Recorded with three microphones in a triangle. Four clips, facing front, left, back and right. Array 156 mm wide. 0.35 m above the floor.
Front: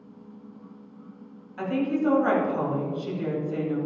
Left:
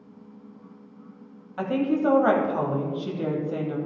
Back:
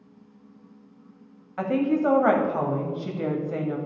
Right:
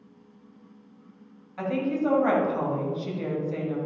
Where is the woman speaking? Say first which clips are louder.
Left 3 dB, back 3 dB; 160° left, 1.7 m.